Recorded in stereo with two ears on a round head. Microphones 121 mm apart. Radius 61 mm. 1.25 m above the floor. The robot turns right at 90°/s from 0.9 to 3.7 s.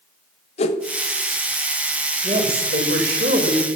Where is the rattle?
No rattle in this recording.